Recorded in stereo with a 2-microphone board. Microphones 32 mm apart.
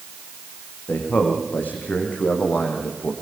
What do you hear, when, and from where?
0.9 s a man speaking: 60° left (ahead or behind), 6.5 m